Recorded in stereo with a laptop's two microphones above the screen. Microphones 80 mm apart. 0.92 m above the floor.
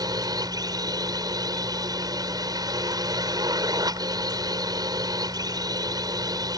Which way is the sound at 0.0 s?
55° right (ahead or behind).